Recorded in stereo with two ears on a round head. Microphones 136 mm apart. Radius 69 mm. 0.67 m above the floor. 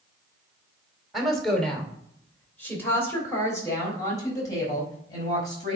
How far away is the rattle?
I don't hear a rattle.